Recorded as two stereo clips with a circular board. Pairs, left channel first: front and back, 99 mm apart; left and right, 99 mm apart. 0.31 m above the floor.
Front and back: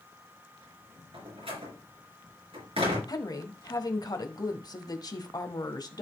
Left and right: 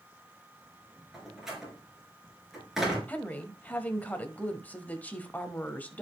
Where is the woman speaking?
25° left, 1.2 m.